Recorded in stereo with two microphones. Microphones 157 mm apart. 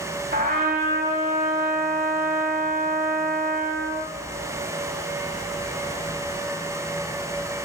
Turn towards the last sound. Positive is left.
turn(degrees=-70)  # may be behind; listen again after turning